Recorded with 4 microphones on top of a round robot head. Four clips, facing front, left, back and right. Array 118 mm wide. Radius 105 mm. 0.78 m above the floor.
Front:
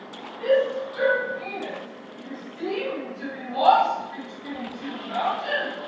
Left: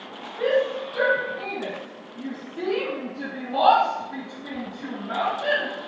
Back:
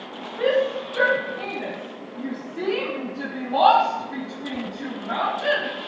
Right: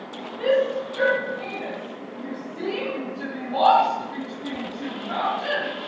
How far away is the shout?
About 8.5 m.